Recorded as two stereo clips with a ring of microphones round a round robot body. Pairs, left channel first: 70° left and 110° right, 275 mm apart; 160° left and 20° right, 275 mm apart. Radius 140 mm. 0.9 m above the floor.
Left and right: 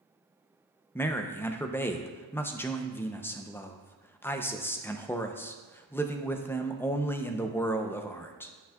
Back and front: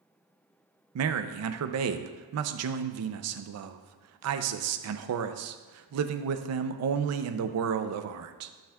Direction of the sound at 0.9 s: 15° right.